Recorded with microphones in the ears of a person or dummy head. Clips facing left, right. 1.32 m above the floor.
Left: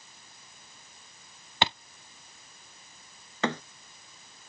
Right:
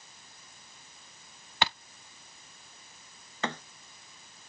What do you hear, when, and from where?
1.6 s a thud: 25° left (ahead or behind)
3.4 s a thud: 75° left (ahead or behind)